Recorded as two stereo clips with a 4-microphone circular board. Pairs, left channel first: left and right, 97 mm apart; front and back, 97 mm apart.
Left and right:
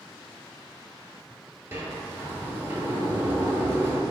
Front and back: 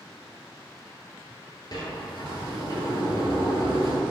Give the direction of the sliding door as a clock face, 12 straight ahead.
1 o'clock.